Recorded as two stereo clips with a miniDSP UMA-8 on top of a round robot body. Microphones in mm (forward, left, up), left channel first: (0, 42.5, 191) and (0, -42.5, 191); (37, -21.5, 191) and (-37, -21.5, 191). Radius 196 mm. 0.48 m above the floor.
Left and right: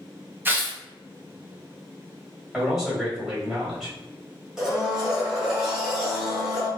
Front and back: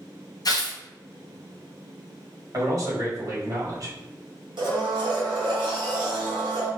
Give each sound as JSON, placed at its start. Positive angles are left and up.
{"t": 0.5, "sound": "tearing paper", "azimuth_deg": -25, "distance_m": 0.8}
{"t": 2.5, "sound": "a man speaking", "azimuth_deg": -175, "distance_m": 1.7}
{"t": 4.6, "sound": "a blender", "azimuth_deg": -175, "distance_m": 0.9}